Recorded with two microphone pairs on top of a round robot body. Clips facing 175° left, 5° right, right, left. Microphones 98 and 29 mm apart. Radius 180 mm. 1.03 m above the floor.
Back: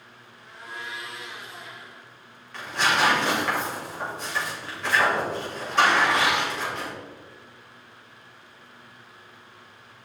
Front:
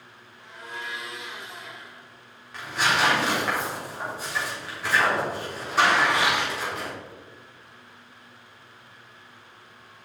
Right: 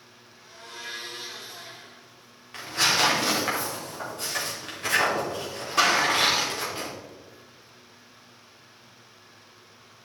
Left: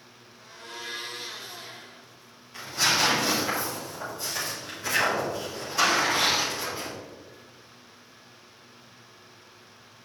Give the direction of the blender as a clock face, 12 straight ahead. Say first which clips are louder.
Front 1 dB, left 1 dB; 12 o'clock.